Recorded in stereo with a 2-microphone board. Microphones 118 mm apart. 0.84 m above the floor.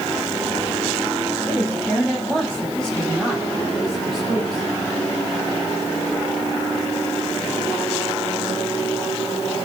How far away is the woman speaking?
About 4.5 m.